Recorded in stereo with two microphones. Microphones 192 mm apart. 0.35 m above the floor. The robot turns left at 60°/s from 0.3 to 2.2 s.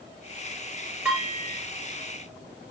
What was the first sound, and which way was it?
Dishes clattering, 5° right.